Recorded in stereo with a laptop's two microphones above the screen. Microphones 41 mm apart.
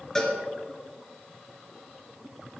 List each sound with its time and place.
0.1 s a cowbell: 15° left (ahead or behind), 2.5 m